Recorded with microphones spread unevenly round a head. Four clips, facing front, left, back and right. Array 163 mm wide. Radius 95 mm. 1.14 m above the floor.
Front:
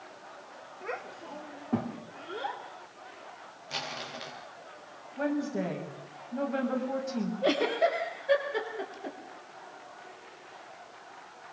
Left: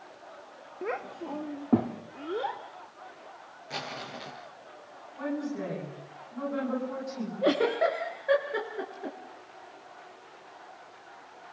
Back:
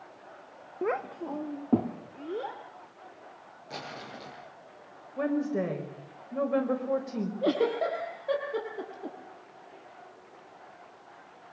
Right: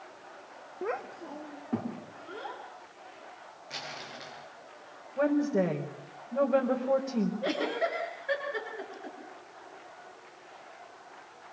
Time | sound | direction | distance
0.8 | a child speaking | straight behind | 0.8 m
3.7 | crumpling | 140° left | 7 m
5.2 | a woman speaking | 135° right | 5.5 m
7.4 | a giggle | 140° left | 4.5 m